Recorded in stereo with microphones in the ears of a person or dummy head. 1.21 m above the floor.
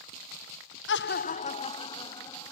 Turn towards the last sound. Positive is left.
turn(degrees=20)  # may be behind; listen again after turning